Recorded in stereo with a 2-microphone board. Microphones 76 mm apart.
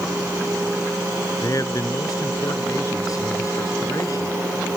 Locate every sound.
1.4 s a man speaking: 45° left (ahead or behind)